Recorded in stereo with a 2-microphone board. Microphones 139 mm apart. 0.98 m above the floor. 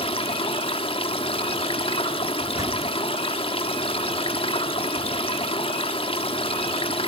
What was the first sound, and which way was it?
Running water, 40° left (ahead or behind).